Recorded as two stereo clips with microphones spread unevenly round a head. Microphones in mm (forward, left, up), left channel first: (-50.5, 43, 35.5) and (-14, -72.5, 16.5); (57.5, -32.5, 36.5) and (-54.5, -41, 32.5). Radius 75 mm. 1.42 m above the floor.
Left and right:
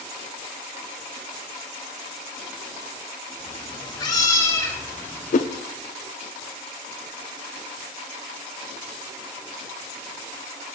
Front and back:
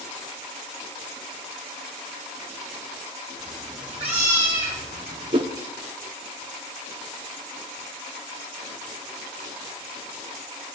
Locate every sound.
3.4 s a cat meowing: 90° left, 1.3 m; by 5.4 s 175° left, 2.5 m
5.3 s a whoosh: 130° left, 0.6 m